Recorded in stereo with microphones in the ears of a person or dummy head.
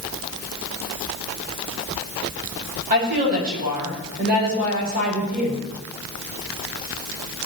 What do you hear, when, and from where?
2.9 s a woman speaking: 50° right (ahead or behind), 7 m; by 5.6 s 40° right (ahead or behind), 7.5 m